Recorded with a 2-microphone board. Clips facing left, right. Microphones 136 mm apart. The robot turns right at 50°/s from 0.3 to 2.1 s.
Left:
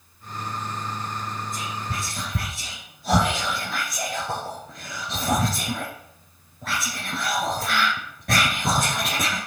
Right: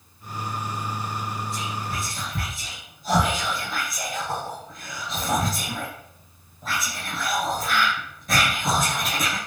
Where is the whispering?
50° left (ahead or behind), 3 m; by 9.4 s 65° left (ahead or behind), 3 m.